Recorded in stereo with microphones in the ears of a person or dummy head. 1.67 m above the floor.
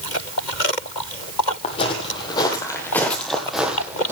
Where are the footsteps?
40° left (ahead or behind), 2.5 m; by 4.1 s 10° right (ahead or behind), 2.5 m.